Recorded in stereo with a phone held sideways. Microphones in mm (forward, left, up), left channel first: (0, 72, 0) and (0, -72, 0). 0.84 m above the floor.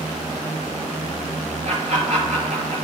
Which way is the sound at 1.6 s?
60° right (ahead or behind).